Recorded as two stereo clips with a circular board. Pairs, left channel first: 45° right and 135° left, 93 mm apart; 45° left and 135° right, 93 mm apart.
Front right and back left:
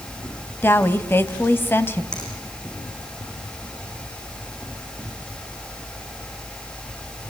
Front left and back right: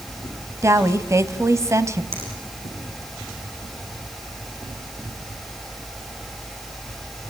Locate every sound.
0.6 s a woman speaking: 100° right, 1.5 m
2.1 s a finger snap: 125° right, 9.5 m